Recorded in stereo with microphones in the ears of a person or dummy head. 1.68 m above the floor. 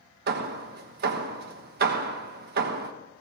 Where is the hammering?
60° right (ahead or behind), 1.3 m.